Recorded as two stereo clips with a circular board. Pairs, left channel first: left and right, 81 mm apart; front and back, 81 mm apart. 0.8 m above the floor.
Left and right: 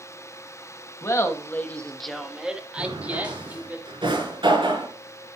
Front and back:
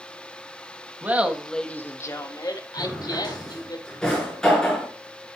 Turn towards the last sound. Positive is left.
turn(degrees=-80)